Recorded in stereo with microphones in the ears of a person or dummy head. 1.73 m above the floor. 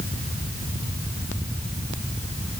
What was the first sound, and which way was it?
Only background noise.